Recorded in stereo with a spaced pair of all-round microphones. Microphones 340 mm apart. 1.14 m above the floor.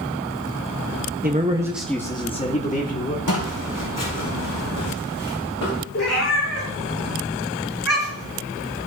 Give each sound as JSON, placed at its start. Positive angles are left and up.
{"t": 1.2, "sound": "a man speaking", "side_deg": -25, "distance_m": 0.7}
{"t": 3.3, "sound": "footsteps", "side_deg": 60, "distance_m": 3.0}
{"t": 5.9, "sound": "a cat meowing", "side_deg": 50, "distance_m": 4.5}